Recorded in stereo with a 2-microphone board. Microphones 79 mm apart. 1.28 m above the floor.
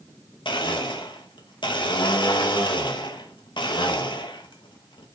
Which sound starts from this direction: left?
A blender, at 0.5 s.